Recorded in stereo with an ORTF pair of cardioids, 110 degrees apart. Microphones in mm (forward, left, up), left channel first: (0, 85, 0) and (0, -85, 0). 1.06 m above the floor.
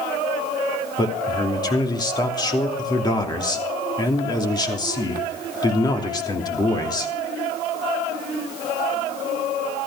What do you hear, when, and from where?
1.0 s a man speaking: 25° left, 3 m